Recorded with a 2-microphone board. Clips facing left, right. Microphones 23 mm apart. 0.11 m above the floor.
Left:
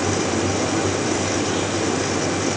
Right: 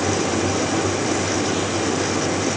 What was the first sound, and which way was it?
Only background noise.